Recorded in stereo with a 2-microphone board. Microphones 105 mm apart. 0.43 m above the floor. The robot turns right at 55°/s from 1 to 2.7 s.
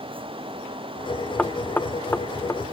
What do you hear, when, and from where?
1.4 s knocking: 10° left (ahead or behind), 0.6 m; by 2.6 s 20° left (ahead or behind), 0.6 m